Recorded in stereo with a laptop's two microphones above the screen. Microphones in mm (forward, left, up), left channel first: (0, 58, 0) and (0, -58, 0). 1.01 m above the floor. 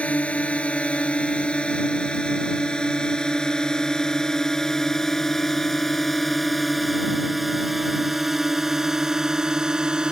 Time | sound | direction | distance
0.0 | a drone | 10° left (ahead or behind) | ?